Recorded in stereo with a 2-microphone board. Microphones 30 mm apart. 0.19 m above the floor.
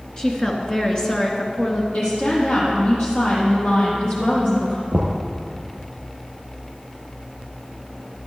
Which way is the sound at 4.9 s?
65° right (ahead or behind).